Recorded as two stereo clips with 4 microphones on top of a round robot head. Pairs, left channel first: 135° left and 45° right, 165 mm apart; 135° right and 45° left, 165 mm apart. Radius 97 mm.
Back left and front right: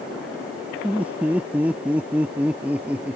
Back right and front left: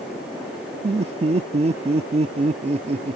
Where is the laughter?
30° left.